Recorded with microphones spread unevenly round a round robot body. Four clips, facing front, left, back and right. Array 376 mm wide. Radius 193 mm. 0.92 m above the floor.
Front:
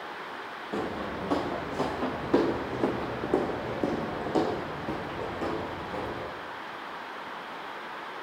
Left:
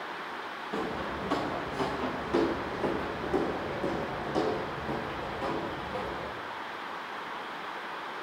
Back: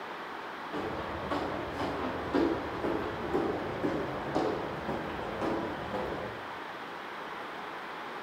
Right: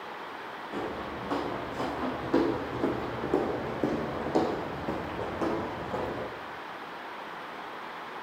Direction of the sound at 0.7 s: Straight ahead.